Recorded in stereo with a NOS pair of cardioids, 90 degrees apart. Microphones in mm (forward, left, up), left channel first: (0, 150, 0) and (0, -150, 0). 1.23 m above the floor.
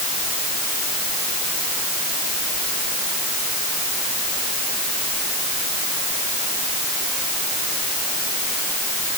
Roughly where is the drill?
I don't hear a drill.